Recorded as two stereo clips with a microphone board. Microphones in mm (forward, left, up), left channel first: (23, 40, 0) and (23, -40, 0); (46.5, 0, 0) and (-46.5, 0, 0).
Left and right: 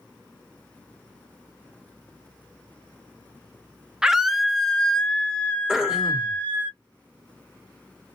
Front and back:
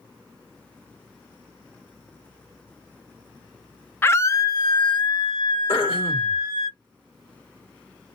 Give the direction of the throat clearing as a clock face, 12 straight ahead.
12 o'clock.